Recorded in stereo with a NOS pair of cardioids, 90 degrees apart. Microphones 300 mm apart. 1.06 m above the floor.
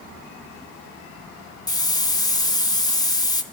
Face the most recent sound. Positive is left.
turn(degrees=15)